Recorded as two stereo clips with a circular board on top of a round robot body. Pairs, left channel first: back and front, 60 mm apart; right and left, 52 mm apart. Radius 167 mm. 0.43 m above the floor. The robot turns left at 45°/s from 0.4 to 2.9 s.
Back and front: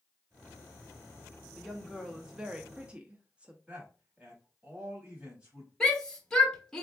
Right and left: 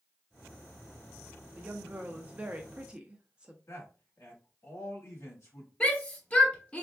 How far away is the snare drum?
No snare drum in this recording.